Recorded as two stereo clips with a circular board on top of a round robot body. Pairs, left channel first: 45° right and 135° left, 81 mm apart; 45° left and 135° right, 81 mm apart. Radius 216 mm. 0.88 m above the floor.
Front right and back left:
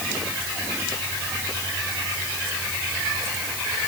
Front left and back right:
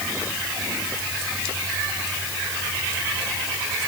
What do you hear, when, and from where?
Only background noise.